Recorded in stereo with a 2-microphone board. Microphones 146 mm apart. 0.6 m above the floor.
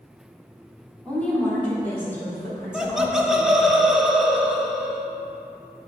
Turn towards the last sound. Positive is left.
turn(degrees=-5)  # may be behind; listen again after turning